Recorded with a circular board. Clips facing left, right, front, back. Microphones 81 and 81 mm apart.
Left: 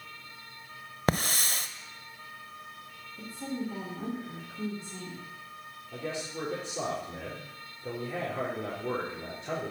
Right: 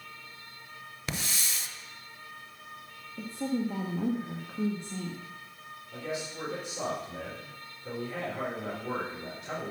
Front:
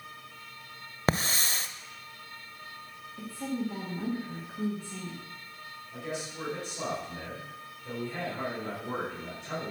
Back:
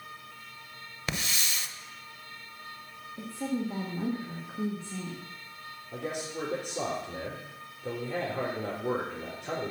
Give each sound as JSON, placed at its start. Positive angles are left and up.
{"t": 1.1, "sound": "a hiss", "azimuth_deg": 50, "distance_m": 0.6}
{"t": 3.2, "sound": "a woman speaking", "azimuth_deg": -115, "distance_m": 1.5}
{"t": 5.9, "sound": "a man speaking", "azimuth_deg": 150, "distance_m": 4.5}